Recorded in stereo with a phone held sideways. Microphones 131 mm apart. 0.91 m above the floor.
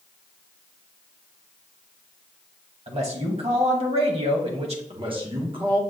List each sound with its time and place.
2.9 s a man speaking: 50° right (ahead or behind), 1.0 m
4.9 s a man speaking: 40° right (ahead or behind), 1.0 m